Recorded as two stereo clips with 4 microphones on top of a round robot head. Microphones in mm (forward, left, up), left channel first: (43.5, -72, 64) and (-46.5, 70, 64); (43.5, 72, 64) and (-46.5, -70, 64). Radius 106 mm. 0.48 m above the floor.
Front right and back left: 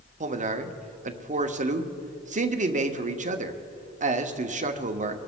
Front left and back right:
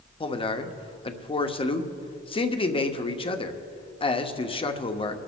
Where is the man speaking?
105° left, 1.1 m.